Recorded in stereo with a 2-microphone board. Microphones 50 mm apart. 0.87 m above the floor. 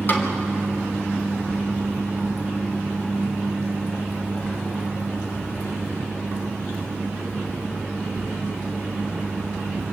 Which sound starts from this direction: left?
A snare drum, at 0.1 s.